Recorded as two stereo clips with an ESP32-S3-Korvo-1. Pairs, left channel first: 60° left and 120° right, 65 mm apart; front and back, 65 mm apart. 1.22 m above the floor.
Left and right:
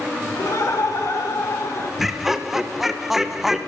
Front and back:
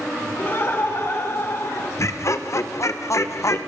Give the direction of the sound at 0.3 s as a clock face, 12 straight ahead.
11 o'clock.